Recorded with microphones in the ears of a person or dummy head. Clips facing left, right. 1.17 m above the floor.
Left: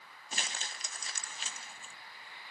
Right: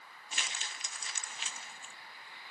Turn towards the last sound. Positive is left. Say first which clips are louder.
# left 2 dB
turn(degrees=30)  # may be behind; listen again after turning